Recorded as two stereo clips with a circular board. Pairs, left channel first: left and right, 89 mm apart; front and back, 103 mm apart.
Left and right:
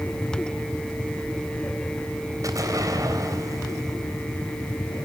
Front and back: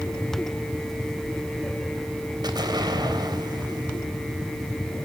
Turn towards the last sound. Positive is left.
turn(degrees=-135)